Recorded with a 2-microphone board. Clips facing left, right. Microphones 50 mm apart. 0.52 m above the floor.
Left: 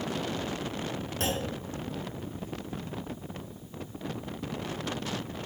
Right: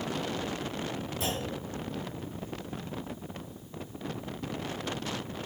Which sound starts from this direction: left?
A clunk, at 1.2 s.